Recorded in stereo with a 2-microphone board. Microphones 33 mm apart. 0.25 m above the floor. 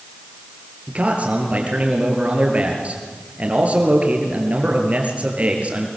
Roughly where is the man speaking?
Right.